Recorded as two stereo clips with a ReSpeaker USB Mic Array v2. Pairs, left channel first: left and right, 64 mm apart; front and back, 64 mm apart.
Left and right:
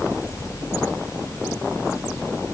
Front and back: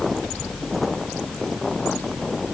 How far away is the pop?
No pop in this recording.